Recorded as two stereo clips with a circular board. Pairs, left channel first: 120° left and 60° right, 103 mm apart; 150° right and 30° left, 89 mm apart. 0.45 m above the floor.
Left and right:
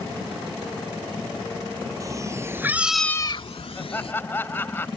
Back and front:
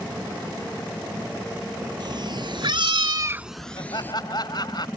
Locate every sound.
2.0 s a cat meowing: 5° right; by 4.1 s 145° left
3.8 s laughter: 175° right